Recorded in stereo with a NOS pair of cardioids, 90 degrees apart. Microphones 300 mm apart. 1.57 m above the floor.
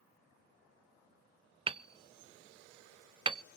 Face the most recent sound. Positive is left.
turn(degrees=-15)